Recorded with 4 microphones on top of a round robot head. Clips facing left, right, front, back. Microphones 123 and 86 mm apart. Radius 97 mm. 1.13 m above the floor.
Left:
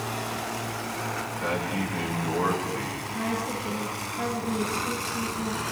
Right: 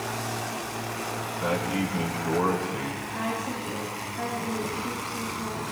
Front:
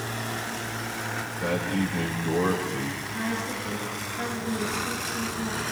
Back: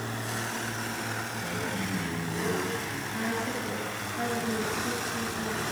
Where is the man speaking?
30° right, 9.5 m.